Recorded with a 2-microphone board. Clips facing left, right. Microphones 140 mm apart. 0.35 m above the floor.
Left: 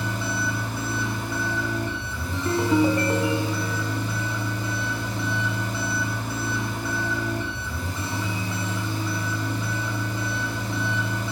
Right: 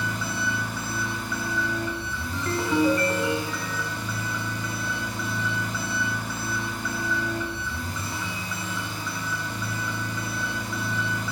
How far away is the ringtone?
About 1.4 m.